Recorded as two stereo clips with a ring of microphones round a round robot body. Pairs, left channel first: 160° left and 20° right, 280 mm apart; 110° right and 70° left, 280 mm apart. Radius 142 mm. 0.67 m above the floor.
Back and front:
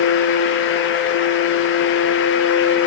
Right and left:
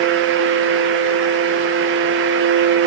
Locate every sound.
Only background noise.